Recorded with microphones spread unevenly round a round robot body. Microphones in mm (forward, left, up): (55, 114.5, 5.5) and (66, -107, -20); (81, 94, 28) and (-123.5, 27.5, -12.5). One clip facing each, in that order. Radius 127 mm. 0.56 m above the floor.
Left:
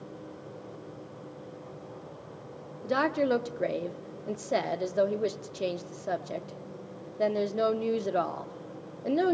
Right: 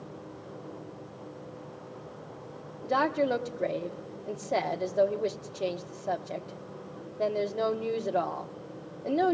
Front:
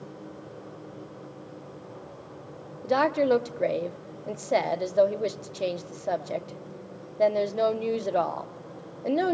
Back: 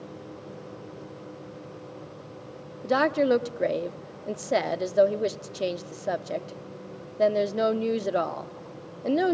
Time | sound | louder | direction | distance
2.8 | a woman speaking | left 1 dB, even | 165° left | 0.7 m